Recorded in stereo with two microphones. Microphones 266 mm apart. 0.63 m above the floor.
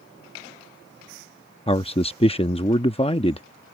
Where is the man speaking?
20° left (ahead or behind).